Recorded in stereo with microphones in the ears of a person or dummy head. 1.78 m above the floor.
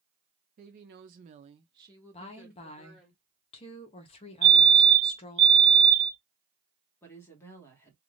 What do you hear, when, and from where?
0.6 s a woman speaking: 45° right (ahead or behind), 0.8 m; by 3.1 s 5° right (ahead or behind), 1.7 m
2.1 s a woman speaking: 35° left (ahead or behind), 0.9 m
4.4 s a fire alarm: 60° right (ahead or behind), 1.1 m
7.0 s a woman speaking: 15° left (ahead or behind), 1.2 m